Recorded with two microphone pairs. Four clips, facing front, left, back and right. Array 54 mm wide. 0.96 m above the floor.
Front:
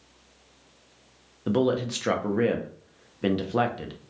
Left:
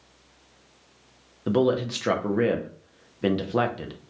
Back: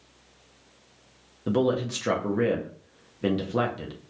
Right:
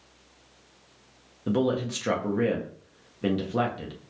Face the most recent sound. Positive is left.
turn(degrees=65)